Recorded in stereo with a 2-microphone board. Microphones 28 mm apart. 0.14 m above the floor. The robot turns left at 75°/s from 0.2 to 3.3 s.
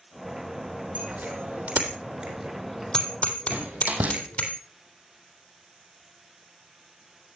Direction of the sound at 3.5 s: 60° right (ahead or behind).